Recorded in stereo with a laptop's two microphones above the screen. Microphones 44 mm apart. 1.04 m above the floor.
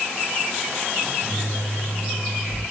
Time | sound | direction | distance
1.0 | a microwave | 30° right (ahead or behind) | 1.7 m